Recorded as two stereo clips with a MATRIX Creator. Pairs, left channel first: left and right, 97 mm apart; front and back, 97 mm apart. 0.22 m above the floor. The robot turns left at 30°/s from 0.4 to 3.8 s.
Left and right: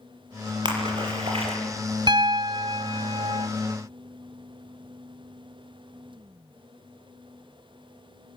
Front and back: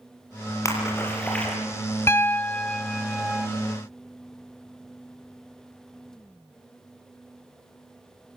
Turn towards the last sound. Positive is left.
turn(degrees=-110)